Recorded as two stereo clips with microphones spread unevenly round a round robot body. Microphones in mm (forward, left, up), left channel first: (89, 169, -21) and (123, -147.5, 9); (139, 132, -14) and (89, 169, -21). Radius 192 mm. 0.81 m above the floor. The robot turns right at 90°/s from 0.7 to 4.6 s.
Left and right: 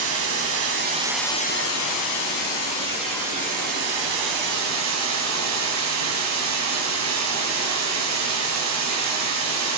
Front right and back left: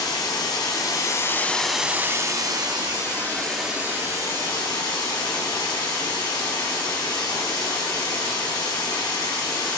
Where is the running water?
35° right, 3 m; by 9.8 s 45° right, 3 m.